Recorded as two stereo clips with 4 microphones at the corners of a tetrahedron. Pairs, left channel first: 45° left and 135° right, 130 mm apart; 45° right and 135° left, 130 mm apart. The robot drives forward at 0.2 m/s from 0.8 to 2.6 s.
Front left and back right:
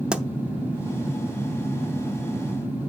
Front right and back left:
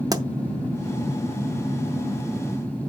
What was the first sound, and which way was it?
A pop, 150° left.